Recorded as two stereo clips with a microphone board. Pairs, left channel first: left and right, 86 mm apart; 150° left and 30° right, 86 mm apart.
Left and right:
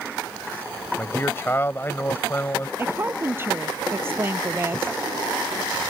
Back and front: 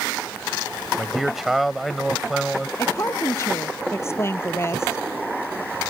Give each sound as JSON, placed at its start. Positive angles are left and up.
{"t": 1.0, "sound": "a man speaking", "azimuth_deg": 55}
{"t": 2.8, "sound": "a woman speaking", "azimuth_deg": -155}